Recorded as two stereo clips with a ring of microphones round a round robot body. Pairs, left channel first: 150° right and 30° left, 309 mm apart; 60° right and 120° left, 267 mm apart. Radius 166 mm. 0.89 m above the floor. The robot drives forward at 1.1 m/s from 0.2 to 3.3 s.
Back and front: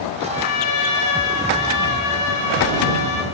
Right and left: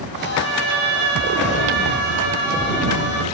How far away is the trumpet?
About 6 m.